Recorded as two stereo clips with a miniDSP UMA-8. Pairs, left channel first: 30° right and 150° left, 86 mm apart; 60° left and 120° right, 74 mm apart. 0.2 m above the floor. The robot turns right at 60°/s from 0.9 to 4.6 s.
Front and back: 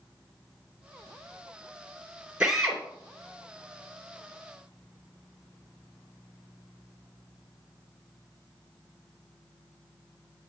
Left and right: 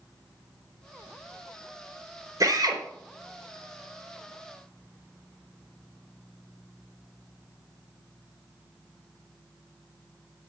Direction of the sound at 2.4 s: 135° right.